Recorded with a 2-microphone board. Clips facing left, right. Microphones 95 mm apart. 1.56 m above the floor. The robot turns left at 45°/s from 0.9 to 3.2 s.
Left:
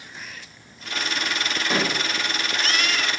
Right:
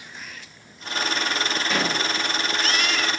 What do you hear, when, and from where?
1.7 s a pop: 30° left (ahead or behind), 0.8 m; by 2.0 s 25° left (ahead or behind), 0.8 m